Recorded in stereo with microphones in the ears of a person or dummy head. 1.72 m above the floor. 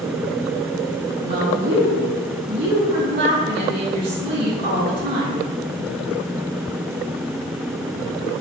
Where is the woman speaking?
60° right (ahead or behind), 1.6 m.